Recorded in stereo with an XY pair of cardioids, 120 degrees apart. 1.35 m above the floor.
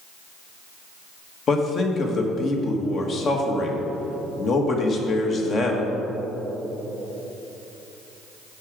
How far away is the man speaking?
About 1.3 m.